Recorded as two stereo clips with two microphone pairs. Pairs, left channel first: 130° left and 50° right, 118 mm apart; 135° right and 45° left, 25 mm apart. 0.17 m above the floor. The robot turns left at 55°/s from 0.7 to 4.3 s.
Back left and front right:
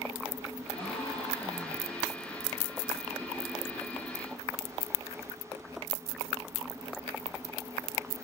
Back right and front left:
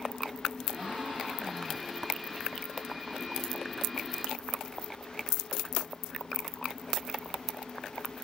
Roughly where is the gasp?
Left.